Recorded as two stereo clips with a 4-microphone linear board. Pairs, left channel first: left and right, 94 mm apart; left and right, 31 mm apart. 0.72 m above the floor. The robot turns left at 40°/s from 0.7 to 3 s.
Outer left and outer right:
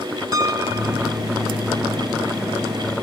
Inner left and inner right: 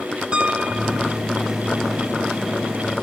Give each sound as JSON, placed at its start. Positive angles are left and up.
{"t": 0.3, "sound": "a piano", "side_deg": -35, "distance_m": 1.8}